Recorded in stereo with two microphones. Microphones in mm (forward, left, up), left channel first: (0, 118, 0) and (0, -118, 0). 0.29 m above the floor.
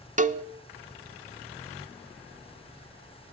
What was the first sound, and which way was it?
A cowbell, 35° right (ahead or behind).